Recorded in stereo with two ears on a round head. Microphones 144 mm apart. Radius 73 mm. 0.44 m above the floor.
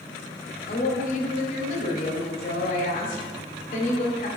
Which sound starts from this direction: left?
A woman speaking, at 0.7 s.